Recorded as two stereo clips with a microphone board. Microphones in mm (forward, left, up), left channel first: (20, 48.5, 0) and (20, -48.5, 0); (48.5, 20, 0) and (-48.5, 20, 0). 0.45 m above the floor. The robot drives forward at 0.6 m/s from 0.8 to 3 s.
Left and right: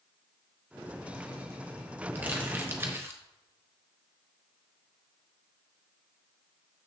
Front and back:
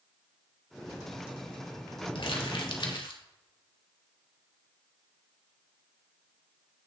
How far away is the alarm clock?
No alarm clock in this recording.